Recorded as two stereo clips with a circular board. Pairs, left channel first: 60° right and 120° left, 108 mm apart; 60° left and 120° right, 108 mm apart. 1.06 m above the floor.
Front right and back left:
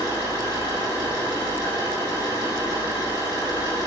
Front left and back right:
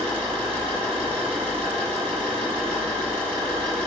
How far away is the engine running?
About 4.5 m.